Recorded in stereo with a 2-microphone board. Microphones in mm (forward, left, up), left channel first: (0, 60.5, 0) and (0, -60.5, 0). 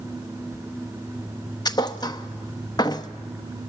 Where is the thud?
30° left (ahead or behind), 0.8 m.